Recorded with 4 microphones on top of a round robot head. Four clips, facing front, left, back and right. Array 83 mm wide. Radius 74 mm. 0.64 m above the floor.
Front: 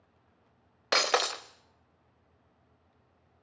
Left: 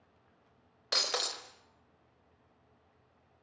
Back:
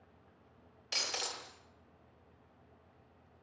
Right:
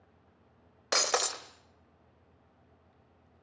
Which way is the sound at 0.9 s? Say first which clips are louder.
Right 6 dB, front 14 dB; 20° right.